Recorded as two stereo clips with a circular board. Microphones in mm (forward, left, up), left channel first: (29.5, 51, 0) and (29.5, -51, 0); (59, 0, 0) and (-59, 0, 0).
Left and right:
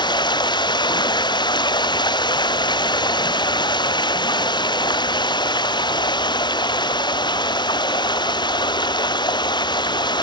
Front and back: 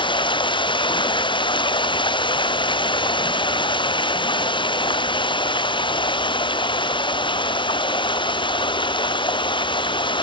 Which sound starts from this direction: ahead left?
Running water, at 0.0 s.